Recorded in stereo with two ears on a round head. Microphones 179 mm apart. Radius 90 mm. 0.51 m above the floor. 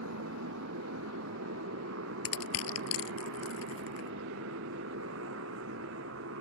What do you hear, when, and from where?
0.0 s a motorcycle: 70° right (ahead or behind)
2.2 s crushing: 80° left